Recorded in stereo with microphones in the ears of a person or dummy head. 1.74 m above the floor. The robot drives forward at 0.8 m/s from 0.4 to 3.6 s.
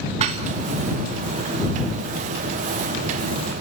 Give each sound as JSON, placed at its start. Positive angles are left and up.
{"t": 0.2, "sound": "dishes clattering", "side_deg": -35, "distance_m": 1.2}